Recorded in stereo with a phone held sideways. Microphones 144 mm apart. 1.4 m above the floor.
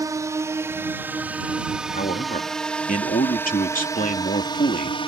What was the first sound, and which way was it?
A drone, 25° right (ahead or behind).